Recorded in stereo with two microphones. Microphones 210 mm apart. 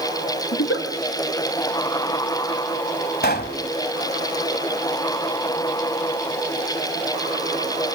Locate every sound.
0.5 s a giggle: 80° left, 3.5 m
3.2 s a pop: 50° left (ahead or behind), 1.4 m